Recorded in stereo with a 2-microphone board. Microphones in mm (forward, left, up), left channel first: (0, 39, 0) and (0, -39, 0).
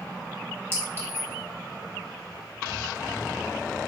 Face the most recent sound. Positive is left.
turn(degrees=-30)  # may be behind; listen again after turning